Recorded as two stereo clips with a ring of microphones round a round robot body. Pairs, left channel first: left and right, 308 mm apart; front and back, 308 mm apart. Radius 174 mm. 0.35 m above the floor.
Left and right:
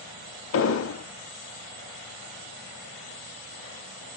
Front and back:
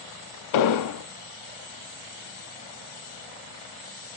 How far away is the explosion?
About 0.6 m.